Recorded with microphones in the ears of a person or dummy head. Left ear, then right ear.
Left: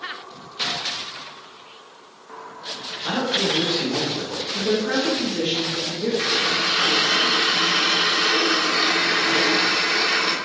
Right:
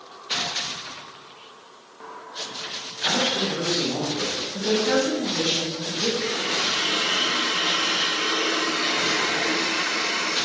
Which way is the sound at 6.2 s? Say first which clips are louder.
Left 4 dB; 55° left (ahead or behind).